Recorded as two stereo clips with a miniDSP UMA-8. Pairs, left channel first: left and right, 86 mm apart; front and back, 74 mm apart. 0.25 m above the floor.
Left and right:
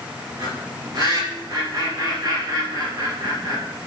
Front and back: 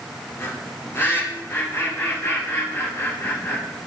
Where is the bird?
55° right, 3.5 m.